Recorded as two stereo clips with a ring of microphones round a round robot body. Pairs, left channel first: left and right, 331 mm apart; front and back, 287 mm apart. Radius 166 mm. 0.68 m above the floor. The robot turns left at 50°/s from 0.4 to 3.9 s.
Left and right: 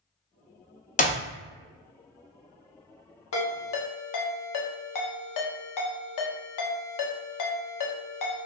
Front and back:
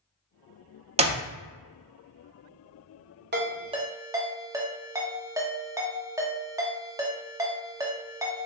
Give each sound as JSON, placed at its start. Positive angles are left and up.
{"t": 1.0, "sound": "a clap", "azimuth_deg": 135, "distance_m": 0.5}
{"t": 3.3, "sound": "a ringtone", "azimuth_deg": 130, "distance_m": 0.9}